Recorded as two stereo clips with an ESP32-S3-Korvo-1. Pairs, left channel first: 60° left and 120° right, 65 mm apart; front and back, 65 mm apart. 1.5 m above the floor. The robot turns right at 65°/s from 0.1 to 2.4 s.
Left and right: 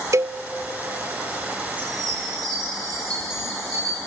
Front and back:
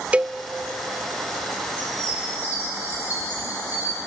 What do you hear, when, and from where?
0.1 s a cowbell: 115° right, 0.5 m; by 0.4 s 100° right, 0.5 m
1.8 s a chime: 165° right, 7.5 m; by 4.0 s 120° right, 7.5 m